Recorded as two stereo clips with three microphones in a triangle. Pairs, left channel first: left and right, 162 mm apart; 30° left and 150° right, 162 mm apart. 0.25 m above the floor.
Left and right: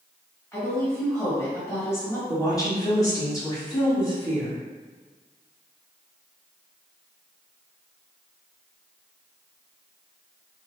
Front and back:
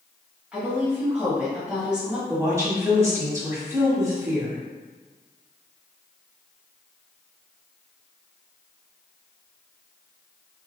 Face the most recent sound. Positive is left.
turn(degrees=145)